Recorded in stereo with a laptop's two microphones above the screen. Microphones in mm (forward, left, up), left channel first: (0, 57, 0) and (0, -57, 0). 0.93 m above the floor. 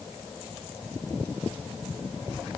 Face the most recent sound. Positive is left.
No sound to turn to.